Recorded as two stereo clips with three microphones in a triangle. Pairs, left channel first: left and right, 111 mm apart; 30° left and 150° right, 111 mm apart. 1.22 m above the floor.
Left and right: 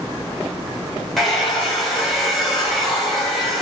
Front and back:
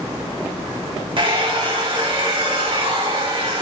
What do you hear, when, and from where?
1.2 s a hair dryer: straight behind, 1.8 m